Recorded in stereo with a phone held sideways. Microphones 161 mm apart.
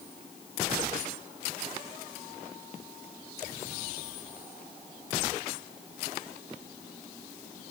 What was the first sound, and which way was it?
Only background noise.